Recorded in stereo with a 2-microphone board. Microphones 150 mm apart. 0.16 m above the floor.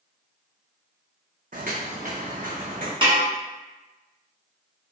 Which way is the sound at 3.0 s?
40° right (ahead or behind).